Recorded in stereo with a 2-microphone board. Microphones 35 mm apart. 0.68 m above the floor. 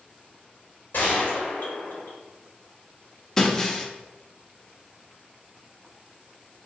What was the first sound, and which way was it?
A gunshot, 60° left (ahead or behind).